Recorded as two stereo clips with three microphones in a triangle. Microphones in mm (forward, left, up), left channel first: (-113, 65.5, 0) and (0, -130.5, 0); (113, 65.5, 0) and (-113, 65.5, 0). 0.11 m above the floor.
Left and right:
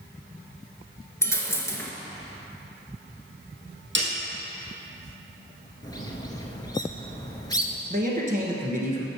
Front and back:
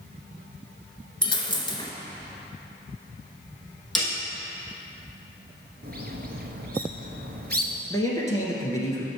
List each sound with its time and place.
1.2 s a dropped coin: 55° left, 0.7 m
4.0 s a snare drum: 90° right, 2.5 m
5.8 s a bird: 175° right, 0.8 m
7.9 s a man speaking: 65° right, 1.6 m